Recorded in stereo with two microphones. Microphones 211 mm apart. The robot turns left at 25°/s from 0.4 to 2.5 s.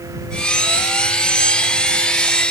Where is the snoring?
No snoring in this recording.